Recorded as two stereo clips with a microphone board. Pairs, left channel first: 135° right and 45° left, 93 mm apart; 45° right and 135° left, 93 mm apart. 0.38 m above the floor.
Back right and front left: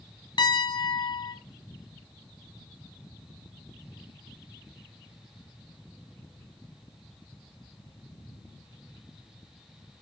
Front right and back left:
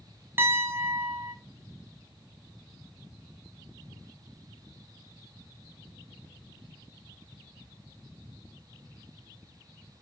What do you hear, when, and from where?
0.4 s a piano: 165° right, 3 m